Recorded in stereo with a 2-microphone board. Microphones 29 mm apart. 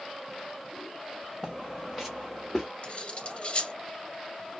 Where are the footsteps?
20° right (ahead or behind), 0.9 m; by 2.7 s 5° left (ahead or behind), 1.4 m.